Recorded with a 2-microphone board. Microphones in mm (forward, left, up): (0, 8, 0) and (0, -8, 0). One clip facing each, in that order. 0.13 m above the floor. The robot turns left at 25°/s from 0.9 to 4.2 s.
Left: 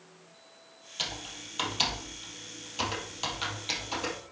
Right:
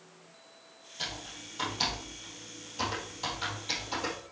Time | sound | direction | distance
1.0 | typing on a keyboard | 70° left (ahead or behind) | 3.5 m